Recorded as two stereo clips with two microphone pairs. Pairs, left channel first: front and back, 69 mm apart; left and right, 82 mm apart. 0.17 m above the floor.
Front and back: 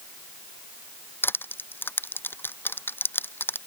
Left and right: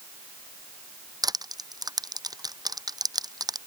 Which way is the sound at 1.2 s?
55° right.